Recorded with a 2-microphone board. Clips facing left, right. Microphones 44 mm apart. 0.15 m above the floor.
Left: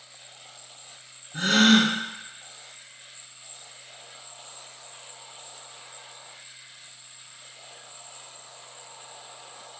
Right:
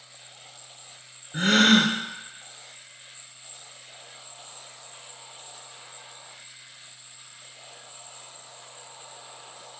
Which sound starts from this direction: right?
A gasp, at 1.3 s.